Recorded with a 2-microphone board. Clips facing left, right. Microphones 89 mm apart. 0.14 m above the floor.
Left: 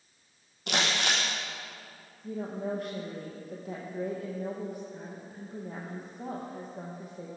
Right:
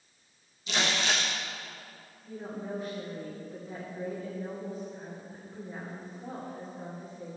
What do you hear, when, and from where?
0.7 s crumpling: 65° left (ahead or behind), 4.5 m
2.2 s a woman speaking: 65° left (ahead or behind), 6 m